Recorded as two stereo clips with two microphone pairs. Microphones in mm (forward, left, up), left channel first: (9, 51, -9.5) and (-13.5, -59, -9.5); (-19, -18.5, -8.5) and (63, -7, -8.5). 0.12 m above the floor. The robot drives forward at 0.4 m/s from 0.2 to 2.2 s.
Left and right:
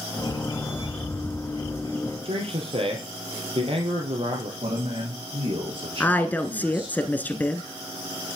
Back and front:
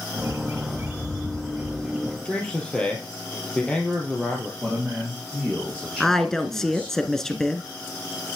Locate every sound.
0.2 s a bird: 45° right, 1.8 m; by 2.1 s 70° right, 1.4 m
2.2 s a man speaking: 95° right, 3 m
4.6 s a man speaking: 85° right, 3.5 m
6.0 s a woman speaking: 110° left, 1.1 m